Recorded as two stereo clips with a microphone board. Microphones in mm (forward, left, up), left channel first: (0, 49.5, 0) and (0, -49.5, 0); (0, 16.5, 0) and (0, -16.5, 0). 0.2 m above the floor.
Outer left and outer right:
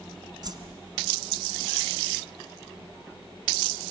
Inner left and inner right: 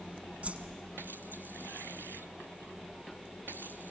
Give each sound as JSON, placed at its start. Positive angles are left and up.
{"t": 0.4, "sound": "a whoosh", "side_deg": -50, "distance_m": 1.2}